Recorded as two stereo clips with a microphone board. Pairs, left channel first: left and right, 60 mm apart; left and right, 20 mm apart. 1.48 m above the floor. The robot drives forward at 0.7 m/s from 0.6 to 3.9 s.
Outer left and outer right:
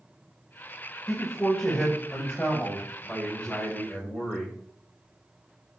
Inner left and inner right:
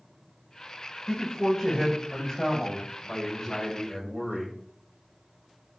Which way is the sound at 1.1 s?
15° left (ahead or behind).